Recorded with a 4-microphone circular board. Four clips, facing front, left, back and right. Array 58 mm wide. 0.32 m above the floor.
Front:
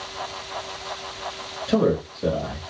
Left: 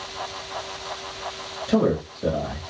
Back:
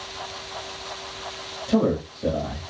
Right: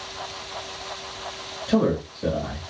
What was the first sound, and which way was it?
A man speaking, 5° right.